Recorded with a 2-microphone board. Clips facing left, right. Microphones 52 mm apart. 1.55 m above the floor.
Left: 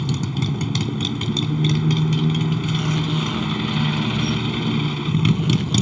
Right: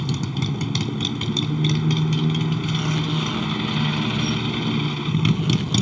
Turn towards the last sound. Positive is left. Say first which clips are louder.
# left 2 dB
turn(degrees=0)  # may be behind; listen again after turning